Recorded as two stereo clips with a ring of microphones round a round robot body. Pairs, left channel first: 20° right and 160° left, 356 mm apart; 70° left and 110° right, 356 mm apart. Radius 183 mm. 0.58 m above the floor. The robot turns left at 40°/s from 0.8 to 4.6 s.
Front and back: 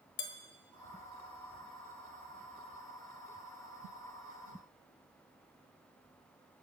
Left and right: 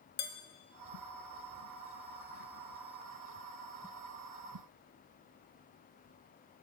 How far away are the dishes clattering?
About 1.3 m.